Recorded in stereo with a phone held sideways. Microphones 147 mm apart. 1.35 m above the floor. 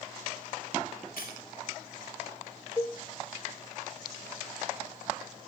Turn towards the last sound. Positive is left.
turn(degrees=20)  # may be behind; listen again after turning